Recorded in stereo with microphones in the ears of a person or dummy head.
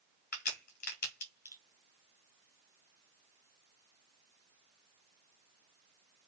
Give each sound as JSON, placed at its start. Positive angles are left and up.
{"t": 0.3, "sound": "a crack", "side_deg": 45, "distance_m": 0.8}